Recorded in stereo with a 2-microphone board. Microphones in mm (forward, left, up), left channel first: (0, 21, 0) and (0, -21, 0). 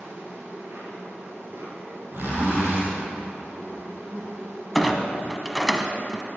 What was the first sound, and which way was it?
An insect, 65° right (ahead or behind).